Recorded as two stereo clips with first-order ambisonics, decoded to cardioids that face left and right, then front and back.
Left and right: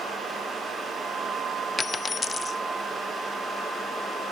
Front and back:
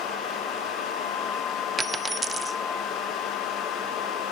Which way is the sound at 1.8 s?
130° left.